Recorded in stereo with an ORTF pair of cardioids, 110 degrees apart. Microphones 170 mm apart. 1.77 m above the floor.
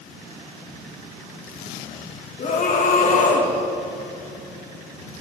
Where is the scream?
50° left, 2.0 m.